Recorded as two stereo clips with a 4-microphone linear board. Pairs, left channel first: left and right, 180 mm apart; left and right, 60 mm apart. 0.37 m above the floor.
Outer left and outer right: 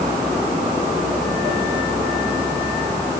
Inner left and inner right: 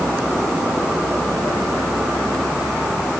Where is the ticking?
I don't hear ticking.